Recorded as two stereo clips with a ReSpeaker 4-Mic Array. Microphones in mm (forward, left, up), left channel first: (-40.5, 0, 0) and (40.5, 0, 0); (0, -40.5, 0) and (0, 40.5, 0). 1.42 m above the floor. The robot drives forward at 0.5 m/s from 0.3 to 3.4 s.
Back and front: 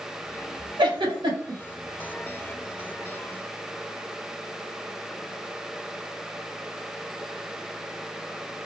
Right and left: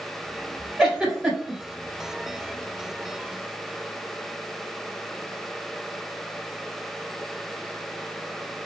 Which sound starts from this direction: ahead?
A giggle, at 0.8 s.